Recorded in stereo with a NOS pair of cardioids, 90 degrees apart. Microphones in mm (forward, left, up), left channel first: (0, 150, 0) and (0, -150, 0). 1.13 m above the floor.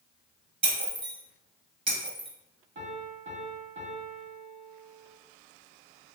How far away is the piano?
About 1.5 m.